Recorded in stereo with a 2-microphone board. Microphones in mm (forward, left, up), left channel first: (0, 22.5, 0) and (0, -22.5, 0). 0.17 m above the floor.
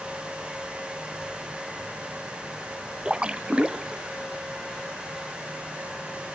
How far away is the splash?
About 0.5 m.